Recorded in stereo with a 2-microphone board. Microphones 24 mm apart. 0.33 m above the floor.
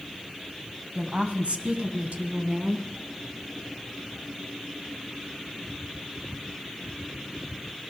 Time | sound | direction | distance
0.9 | a woman speaking | 45° right (ahead or behind) | 2.5 m